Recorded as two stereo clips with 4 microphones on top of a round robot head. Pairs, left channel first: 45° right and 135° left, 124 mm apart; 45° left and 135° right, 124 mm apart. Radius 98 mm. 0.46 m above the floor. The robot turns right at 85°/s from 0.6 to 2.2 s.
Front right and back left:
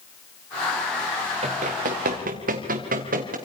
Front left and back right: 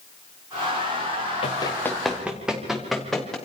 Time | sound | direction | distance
1.4 | running footsteps | 90° left | 2.5 m